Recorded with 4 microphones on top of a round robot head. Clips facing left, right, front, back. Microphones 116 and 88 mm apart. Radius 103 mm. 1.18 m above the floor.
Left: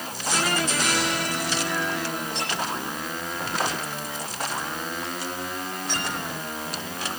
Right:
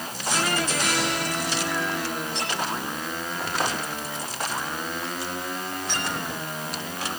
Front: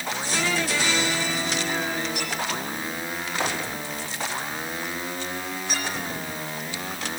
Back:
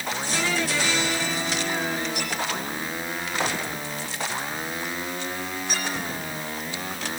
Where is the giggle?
No giggle in this recording.